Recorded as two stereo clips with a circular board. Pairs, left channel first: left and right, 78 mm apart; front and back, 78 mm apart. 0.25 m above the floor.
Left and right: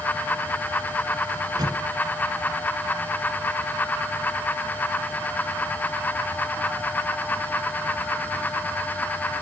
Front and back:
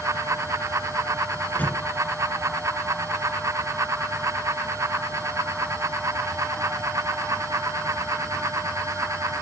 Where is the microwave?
70° right, 2 m.